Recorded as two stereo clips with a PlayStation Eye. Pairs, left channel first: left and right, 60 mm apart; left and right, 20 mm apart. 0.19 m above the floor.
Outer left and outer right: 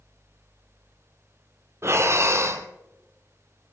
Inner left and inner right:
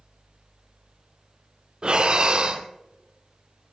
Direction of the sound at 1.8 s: 45° right (ahead or behind).